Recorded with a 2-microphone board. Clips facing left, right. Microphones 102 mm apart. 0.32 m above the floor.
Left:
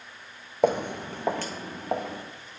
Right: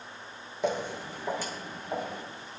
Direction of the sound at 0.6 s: 55° left (ahead or behind).